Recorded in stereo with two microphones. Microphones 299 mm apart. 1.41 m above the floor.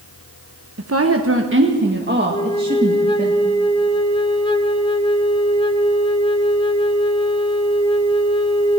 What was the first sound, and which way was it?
A woman speaking, 55° right (ahead or behind).